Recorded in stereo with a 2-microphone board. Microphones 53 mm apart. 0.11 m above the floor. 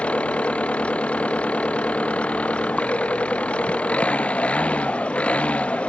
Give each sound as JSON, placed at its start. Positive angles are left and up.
{"t": 0.0, "sound": "an engine running", "side_deg": 25}